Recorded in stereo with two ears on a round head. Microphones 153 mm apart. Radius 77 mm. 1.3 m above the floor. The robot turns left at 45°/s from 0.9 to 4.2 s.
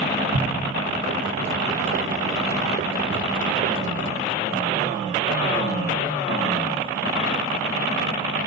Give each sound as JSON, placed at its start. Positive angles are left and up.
{"t": 0.3, "sound": "an explosion", "side_deg": -35, "distance_m": 1.3}